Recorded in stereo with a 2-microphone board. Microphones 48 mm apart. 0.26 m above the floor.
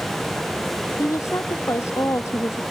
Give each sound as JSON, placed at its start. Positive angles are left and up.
{"t": 1.0, "sound": "a woman speaking", "side_deg": 75}